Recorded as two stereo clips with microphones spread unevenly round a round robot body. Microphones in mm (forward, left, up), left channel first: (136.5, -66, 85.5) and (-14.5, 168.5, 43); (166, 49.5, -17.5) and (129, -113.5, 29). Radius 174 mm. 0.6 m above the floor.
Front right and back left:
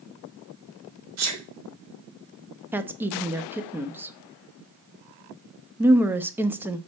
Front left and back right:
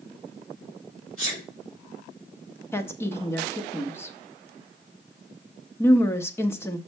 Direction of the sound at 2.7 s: 65° left.